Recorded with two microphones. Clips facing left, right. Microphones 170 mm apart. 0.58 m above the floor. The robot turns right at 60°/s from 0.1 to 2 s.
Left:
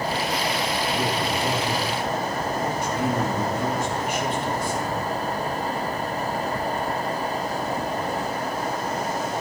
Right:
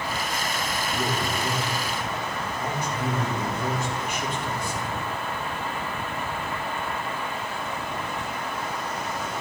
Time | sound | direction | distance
0.9 | a man speaking | 10° right | 5 m